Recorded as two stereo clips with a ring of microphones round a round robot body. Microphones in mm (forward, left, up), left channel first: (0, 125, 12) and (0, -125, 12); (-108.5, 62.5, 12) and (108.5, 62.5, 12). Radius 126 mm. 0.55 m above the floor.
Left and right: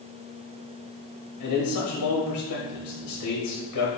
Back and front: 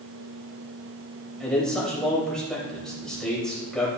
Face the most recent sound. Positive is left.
turn(degrees=95)